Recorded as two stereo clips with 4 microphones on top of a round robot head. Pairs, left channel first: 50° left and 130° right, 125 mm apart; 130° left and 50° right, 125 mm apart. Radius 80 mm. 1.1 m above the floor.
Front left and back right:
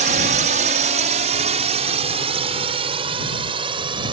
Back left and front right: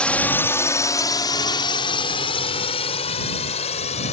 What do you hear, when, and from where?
0.0 s a drone: 150° right; by 4.1 s 175° left